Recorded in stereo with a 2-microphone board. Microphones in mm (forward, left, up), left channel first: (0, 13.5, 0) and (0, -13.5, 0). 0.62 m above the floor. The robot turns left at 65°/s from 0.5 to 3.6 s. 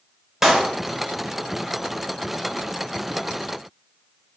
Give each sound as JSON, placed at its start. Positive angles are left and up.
{"t": 0.4, "sound": "a clap", "side_deg": -5, "distance_m": 2.5}